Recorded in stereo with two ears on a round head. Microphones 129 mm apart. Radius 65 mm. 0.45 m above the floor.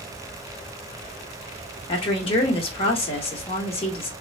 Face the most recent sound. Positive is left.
turn(degrees=40)  # may be behind; listen again after turning